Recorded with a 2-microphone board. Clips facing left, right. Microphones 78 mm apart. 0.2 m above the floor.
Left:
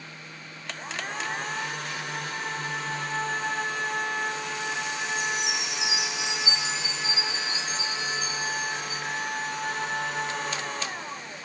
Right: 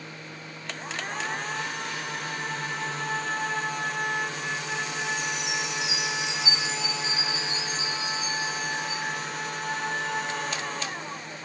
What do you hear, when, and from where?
5.2 s a chime: 55° left (ahead or behind), 1.6 m